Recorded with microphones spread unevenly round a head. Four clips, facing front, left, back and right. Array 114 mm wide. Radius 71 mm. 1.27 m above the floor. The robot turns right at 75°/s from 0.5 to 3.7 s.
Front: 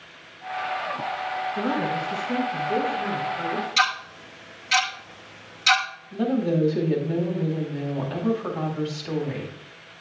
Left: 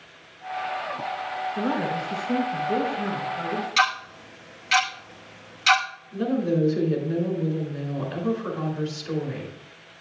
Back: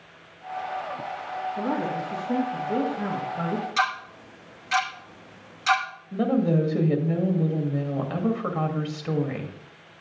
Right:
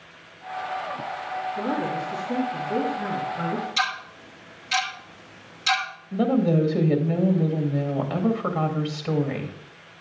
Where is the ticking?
145° left, 0.9 m.